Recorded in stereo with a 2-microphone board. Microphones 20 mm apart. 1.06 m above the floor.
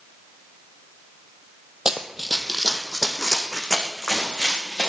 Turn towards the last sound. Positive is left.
turn(degrees=35)  # may be behind; listen again after turning